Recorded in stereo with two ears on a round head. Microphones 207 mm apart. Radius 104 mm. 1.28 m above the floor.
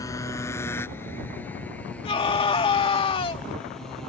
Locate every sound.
0.0 s a motorcycle: 15° left (ahead or behind); by 4.1 s centre (ahead or behind)
2.0 s a scream: 25° left (ahead or behind)